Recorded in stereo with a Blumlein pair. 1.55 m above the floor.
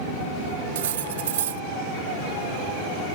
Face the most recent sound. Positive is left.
turn(degrees=-60)